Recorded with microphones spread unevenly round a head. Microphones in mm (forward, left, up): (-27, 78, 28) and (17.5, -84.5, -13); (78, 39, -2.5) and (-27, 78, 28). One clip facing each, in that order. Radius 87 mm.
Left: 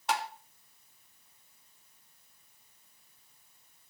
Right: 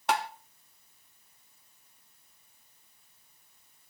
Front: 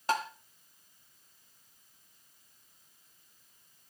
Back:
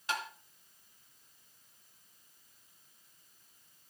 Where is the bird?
No bird in this recording.